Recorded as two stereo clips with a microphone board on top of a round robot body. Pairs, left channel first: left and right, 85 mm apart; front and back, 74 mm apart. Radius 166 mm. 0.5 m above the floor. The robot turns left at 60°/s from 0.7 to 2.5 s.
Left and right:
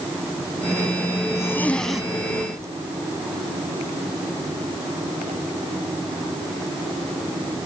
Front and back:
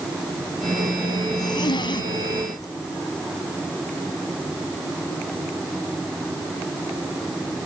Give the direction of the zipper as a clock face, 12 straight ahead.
11 o'clock.